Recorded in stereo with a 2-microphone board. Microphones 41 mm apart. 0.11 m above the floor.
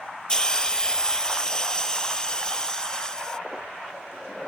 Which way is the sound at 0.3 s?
20° left (ahead or behind).